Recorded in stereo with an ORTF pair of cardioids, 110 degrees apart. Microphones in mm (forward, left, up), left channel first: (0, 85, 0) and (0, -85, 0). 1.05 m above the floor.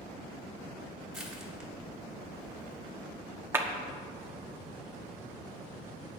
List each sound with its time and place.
1.1 s crushing: 5° right, 3 m
3.5 s a clap: 15° right, 1.3 m